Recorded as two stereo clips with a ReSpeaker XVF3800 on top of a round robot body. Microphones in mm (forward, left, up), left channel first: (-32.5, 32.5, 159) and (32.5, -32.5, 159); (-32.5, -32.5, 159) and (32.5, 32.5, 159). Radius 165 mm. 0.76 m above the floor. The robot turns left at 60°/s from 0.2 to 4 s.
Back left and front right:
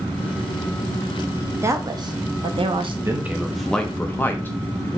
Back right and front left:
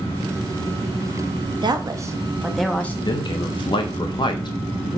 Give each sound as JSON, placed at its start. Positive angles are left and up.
{"t": 1.6, "sound": "a woman speaking", "azimuth_deg": 15, "distance_m": 0.8}
{"t": 3.0, "sound": "a man speaking", "azimuth_deg": -105, "distance_m": 0.7}